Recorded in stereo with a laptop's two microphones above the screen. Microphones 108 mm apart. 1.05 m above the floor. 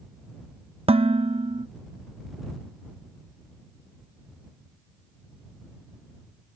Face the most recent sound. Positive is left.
turn(degrees=-65)  # may be behind; listen again after turning